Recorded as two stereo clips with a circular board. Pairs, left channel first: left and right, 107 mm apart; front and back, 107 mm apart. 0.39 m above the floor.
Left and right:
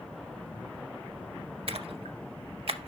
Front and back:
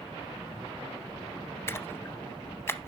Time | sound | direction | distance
1.7 | a splash | 65° right | 0.6 m